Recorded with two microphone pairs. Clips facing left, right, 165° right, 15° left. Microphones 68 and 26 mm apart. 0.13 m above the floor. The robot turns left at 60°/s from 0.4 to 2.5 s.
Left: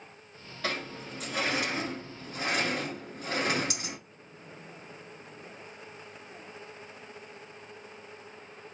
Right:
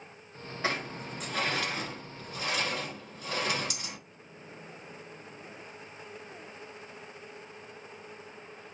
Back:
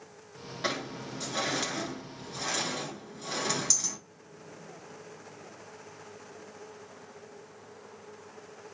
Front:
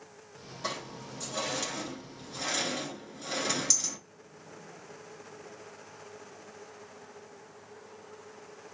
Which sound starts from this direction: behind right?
A sliding door, at 0.6 s.